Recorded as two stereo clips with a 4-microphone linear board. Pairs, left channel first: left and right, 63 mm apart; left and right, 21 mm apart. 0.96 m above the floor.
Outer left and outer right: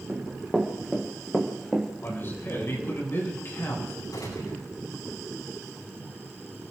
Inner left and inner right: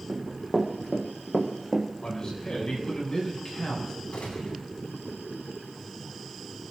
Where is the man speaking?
40° left (ahead or behind), 7.5 m.